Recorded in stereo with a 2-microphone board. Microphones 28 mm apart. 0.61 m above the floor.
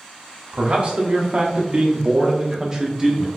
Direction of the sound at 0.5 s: 40° right (ahead or behind).